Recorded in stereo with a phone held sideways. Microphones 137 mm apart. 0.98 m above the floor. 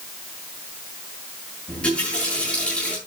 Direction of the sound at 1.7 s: 10° left (ahead or behind).